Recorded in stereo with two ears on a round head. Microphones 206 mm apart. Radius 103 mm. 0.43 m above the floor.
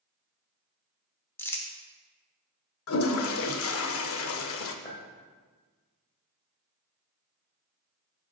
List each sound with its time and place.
1.4 s crumpling: 10° left (ahead or behind), 0.8 m
2.9 s a toilet flushing: 65° left (ahead or behind), 0.5 m
4.8 s a clink: 30° left (ahead or behind), 1.4 m